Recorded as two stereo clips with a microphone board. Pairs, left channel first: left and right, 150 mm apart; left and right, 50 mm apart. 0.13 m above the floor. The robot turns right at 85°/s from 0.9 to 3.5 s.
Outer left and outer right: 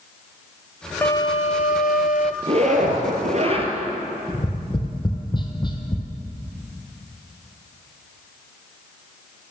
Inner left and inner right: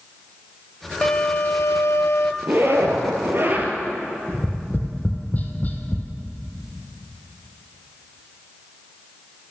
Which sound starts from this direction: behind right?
A zipper, at 2.4 s.